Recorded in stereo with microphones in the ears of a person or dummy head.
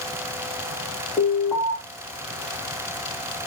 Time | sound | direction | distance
1.2 | an alarm | 10° left (ahead or behind) | 1.4 m